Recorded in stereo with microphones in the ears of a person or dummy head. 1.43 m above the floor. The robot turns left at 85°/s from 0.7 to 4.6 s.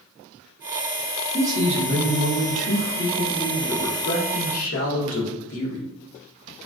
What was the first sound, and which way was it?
A man speaking, 5° right.